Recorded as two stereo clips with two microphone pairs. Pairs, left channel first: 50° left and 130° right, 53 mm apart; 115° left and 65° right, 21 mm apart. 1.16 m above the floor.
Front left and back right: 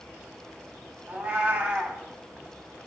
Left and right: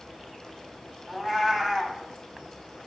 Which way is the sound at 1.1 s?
125° right.